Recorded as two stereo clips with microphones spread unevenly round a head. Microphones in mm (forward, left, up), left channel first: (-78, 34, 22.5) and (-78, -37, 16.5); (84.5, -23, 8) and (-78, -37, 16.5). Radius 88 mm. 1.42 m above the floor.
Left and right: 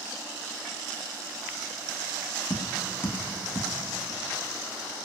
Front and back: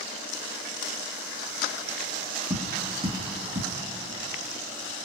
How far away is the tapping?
About 2.5 m.